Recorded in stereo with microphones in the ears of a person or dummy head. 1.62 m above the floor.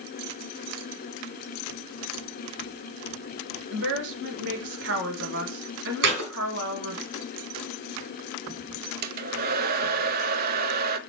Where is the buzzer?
No buzzer in this recording.